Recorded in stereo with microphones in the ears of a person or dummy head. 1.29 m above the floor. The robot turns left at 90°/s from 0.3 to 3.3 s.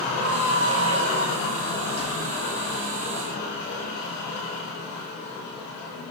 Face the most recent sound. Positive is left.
turn(degrees=30)  # may be behind; listen again after turning